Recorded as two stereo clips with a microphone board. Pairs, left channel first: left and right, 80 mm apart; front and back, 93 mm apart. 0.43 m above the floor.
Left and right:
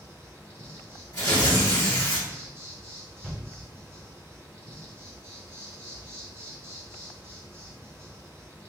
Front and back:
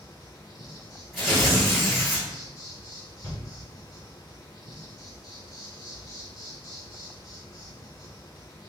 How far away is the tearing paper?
About 1.9 m.